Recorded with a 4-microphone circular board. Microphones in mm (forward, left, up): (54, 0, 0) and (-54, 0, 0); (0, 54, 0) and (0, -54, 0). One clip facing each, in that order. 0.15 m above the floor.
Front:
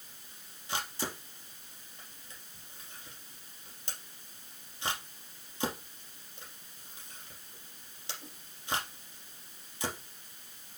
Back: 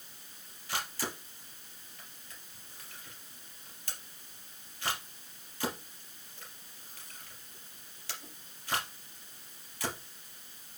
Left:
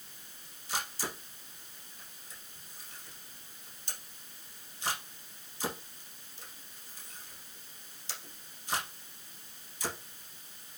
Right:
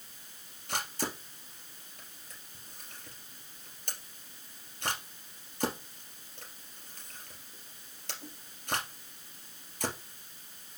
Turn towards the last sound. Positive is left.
turn(degrees=-65)